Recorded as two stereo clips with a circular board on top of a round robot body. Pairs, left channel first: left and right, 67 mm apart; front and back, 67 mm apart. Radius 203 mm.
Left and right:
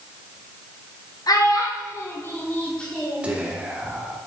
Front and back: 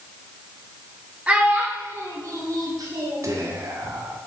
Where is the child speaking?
110° left, 2 m; by 3.3 s straight behind, 2.5 m.